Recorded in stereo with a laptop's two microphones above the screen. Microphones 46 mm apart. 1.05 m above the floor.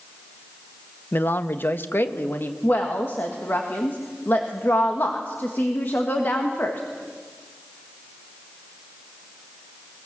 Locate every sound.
1.1 s a man speaking: 40° left (ahead or behind), 0.6 m; by 2.5 s 45° left (ahead or behind), 1.3 m
2.6 s a woman speaking: 45° left (ahead or behind), 1.5 m